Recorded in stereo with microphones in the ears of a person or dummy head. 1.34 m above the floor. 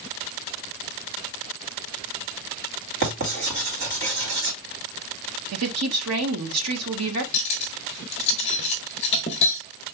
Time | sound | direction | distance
3.0 | writing | 65° right (ahead or behind) | 3.5 m
5.5 | a woman speaking | 85° right | 1.4 m
7.3 | cutlery clinking | 35° left (ahead or behind) | 0.7 m